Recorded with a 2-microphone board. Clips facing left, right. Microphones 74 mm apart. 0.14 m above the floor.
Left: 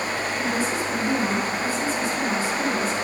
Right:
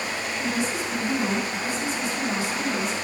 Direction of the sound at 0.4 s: 35° left (ahead or behind).